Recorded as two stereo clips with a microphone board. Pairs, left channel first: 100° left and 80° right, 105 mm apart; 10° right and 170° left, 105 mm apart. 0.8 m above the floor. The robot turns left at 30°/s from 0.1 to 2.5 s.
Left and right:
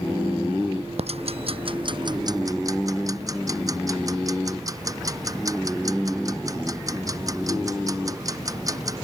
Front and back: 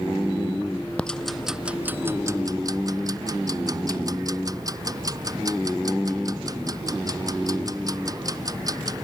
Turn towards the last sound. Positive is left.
turn(degrees=-135)